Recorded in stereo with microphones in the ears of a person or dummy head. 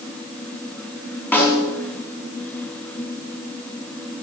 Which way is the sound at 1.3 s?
10° left (ahead or behind).